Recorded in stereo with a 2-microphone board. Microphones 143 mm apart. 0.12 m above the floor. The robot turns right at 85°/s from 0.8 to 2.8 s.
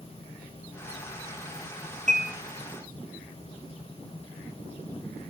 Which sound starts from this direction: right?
Dishes clattering, at 2.1 s.